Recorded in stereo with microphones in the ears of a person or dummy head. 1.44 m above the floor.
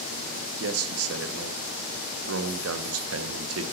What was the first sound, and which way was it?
A man speaking, 80° right.